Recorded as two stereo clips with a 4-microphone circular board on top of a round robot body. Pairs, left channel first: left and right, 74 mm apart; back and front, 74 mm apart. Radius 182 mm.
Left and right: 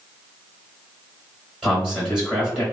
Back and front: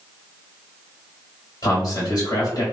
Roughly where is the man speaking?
Behind.